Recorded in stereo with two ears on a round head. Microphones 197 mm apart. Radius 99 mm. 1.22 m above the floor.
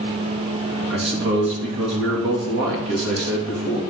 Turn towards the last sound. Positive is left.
turn(degrees=-55)  # may be behind; listen again after turning